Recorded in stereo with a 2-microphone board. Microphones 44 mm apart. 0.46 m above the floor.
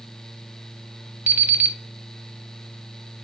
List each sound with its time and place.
1.3 s an alarm clock: 45° right (ahead or behind), 0.9 m